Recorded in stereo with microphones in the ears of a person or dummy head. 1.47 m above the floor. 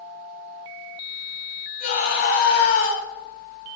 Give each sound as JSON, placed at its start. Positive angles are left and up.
{"t": 1.8, "sound": "a scream", "side_deg": 55, "distance_m": 8.5}